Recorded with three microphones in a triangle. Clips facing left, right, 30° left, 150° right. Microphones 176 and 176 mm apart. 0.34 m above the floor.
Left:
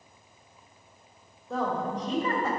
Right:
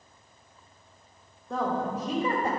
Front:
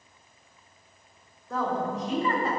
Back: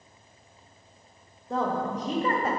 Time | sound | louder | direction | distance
1.5 | a woman speaking | right 1 dB, back 1 dB | 175° left | 1.3 m